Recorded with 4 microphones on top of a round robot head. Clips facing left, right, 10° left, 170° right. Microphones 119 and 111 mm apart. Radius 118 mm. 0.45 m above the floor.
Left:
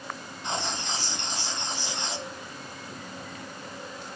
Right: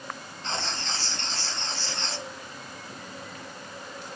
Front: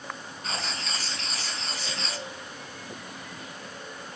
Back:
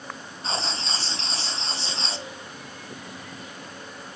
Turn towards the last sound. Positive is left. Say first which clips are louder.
# left 2 dB, back 4 dB
turn(degrees=155)